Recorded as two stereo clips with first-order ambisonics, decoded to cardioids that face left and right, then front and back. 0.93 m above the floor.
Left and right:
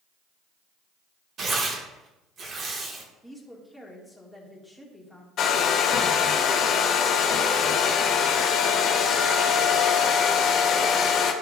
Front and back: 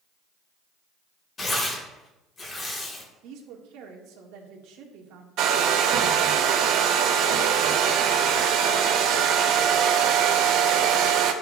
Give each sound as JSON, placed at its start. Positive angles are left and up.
{"t": 1.4, "sound": "tearing paper", "azimuth_deg": -55, "distance_m": 1.0}
{"t": 3.2, "sound": "a woman speaking", "azimuth_deg": 180, "distance_m": 1.4}
{"t": 5.4, "sound": "a hair dryer", "azimuth_deg": 140, "distance_m": 0.8}